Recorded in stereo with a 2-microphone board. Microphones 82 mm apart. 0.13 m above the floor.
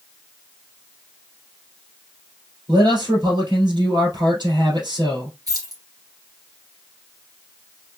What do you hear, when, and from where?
2.7 s a man speaking: 60° right (ahead or behind), 2.5 m
5.5 s keys jangling: 50° right (ahead or behind), 1.9 m